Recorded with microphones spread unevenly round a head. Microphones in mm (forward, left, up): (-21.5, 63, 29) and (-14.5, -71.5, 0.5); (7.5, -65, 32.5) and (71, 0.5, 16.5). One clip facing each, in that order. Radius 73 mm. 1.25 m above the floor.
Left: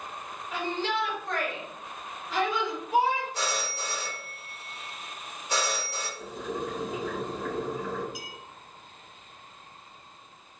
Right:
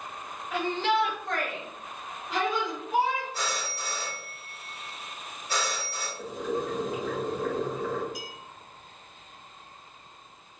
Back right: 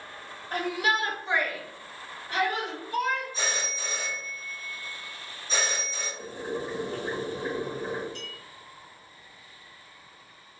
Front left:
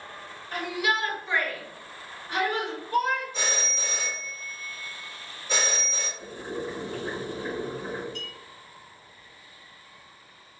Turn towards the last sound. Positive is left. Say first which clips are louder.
# right 2 dB, front left 1 dB
turn(degrees=70)